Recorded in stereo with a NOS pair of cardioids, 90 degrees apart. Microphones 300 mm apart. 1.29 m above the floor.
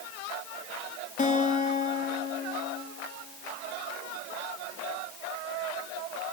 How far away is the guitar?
About 2 m.